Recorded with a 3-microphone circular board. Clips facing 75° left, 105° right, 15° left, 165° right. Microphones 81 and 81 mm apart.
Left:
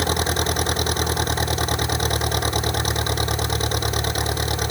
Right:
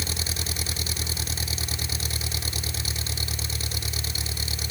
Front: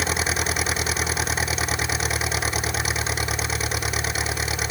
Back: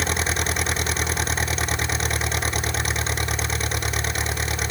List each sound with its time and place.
0.0 s an engine running: 100° left